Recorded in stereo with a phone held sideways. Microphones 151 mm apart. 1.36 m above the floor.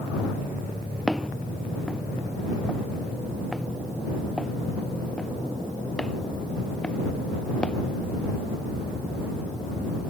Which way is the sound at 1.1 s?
Centre (ahead or behind).